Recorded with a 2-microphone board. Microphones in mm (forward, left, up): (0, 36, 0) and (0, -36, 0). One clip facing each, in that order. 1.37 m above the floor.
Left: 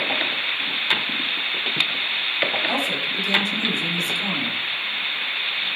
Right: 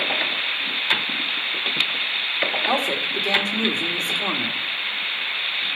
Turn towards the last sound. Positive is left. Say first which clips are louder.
# right 2 dB
turn(degrees=-50)  # may be behind; listen again after turning